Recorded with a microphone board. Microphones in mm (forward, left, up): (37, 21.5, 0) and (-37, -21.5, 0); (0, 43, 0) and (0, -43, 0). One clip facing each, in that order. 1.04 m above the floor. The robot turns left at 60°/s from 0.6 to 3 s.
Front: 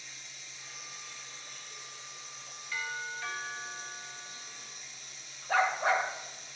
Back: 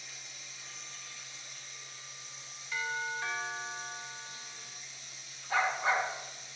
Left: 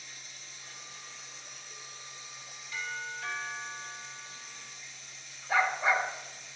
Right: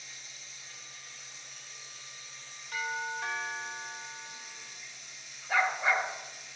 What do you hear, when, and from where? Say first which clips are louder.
0.0 s running water: even, left 1 dB; 125° left, 2 m; by 6.6 s 15° right, 2 m
2.7 s a doorbell: back 3 dB, right 4 dB; 75° right, 1.9 m; by 4.8 s 90° right, 1.9 m
5.5 s a dog barking: front 2 dB, left 1 dB; straight ahead, 2 m